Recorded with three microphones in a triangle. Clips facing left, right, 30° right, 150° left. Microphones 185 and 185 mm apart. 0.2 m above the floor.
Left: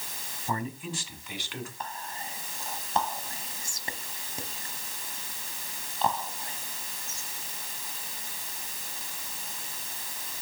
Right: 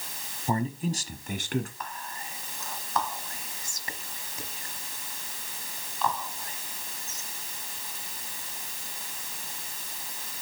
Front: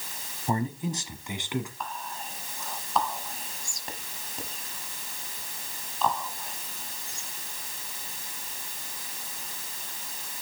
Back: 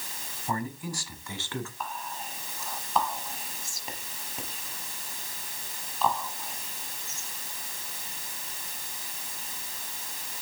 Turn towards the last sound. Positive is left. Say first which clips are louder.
# left 1 dB, even
turn(degrees=65)